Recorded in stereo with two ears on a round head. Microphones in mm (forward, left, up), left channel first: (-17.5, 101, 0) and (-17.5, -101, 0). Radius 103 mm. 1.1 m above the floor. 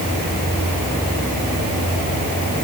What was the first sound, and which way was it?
Only background noise.